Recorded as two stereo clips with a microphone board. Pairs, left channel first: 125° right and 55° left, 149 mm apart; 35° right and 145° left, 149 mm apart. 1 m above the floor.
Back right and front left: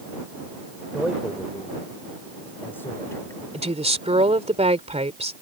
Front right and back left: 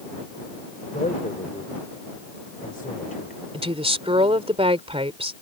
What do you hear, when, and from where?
0.9 s a man speaking: 30° right; by 3.4 s 55° right
3.5 s a woman speaking: 100° left